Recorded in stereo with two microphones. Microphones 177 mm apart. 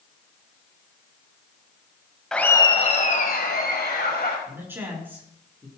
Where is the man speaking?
15° right (ahead or behind), 4.5 m.